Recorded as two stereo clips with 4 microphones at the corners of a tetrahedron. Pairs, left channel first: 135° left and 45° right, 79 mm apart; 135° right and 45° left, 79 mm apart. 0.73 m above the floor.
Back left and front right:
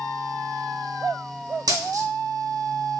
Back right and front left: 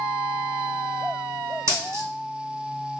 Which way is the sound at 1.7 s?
10° right.